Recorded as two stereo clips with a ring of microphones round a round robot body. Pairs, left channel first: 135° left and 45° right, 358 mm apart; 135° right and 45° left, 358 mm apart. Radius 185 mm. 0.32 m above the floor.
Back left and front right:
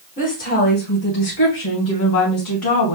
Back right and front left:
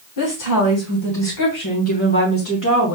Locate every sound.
0.2 s a woman speaking: 160° right, 3 m; by 3.0 s 170° left, 2.5 m